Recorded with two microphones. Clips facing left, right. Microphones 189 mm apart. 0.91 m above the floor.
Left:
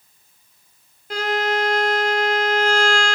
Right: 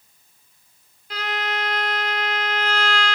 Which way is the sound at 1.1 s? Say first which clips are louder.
Left 7 dB; 50° left (ahead or behind).